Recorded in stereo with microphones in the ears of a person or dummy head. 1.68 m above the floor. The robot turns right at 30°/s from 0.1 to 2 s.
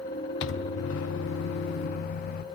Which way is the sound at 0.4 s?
75° left.